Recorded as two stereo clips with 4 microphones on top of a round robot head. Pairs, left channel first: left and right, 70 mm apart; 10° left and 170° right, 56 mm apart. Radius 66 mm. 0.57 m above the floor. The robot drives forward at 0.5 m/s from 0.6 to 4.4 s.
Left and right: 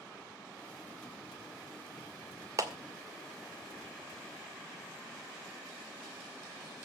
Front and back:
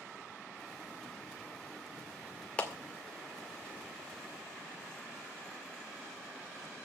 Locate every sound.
2.6 s a clap: 55° right, 2 m